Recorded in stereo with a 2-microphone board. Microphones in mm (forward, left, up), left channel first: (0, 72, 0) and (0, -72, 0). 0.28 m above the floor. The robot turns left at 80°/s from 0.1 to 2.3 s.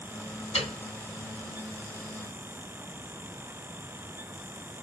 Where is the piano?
50° left (ahead or behind), 1.5 m; by 0.8 s 60° left (ahead or behind), 1.5 m.